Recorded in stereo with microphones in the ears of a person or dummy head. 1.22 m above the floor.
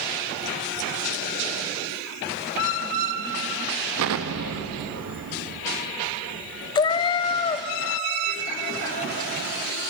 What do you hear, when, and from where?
4.0 s an explosion: 70° right (ahead or behind), 1.0 m
6.8 s a cat meowing: 20° left (ahead or behind), 0.6 m